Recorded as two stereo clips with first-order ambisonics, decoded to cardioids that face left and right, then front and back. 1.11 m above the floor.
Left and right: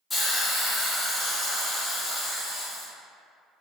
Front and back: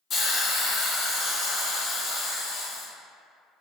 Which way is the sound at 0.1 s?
20° left.